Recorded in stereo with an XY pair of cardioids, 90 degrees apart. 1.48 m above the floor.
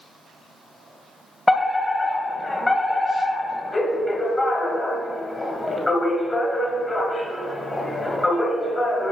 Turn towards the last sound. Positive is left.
turn(degrees=15)